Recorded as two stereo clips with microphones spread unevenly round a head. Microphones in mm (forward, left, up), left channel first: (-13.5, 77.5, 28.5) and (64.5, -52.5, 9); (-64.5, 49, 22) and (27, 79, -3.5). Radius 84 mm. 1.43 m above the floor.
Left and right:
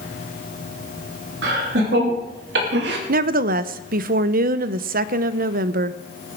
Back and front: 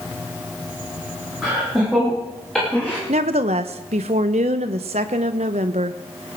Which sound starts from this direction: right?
Laughter, at 1.4 s.